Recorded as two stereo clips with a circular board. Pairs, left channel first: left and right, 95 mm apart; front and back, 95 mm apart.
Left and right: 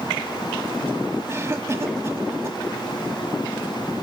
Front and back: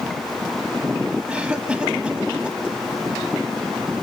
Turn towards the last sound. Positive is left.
turn(degrees=-110)